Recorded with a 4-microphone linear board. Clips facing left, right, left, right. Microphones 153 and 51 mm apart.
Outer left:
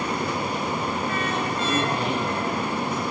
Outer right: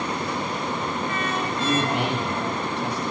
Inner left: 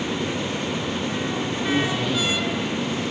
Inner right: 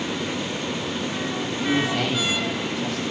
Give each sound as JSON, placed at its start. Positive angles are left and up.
{"t": 1.6, "sound": "a man speaking", "side_deg": -80, "distance_m": 8.0}